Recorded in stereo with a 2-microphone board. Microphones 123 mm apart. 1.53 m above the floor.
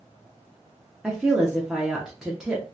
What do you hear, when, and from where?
1.0 s a woman speaking: 5° right (ahead or behind), 0.9 m